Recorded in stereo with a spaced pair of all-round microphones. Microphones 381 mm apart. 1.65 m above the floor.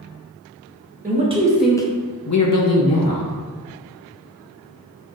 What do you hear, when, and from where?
1.0 s a man speaking: 20° right (ahead or behind), 1.0 m; by 3.3 s 70° left (ahead or behind), 1.0 m